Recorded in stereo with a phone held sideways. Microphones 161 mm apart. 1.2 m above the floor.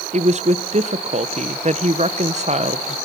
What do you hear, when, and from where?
0.1 s a woman speaking: 45° right (ahead or behind), 0.9 m